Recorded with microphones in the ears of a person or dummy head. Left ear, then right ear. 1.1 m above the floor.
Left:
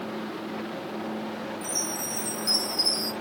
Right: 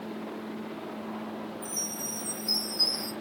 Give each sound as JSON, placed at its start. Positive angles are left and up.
{"t": 1.6, "sound": "a chime", "side_deg": 40, "distance_m": 4.0}